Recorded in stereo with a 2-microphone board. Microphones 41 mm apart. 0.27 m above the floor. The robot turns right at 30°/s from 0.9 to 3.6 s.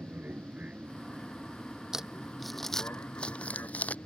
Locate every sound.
0.0 s an aircraft: 45° right (ahead or behind); by 4.1 s 60° left (ahead or behind)
1.9 s crumpling: 15° right (ahead or behind); by 4.0 s 35° left (ahead or behind)